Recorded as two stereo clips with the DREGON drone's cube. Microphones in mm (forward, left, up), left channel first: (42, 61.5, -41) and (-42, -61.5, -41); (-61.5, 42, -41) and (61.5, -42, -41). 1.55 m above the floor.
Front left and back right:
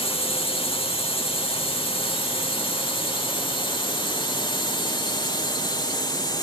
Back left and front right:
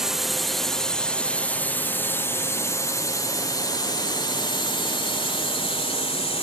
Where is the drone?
50° left; by 6.5 s 110° left.